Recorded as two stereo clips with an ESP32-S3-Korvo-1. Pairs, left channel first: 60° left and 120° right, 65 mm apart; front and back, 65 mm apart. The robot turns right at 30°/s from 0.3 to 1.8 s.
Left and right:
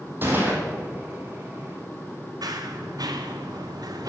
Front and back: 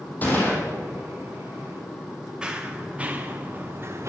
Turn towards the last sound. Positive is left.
turn(degrees=-140)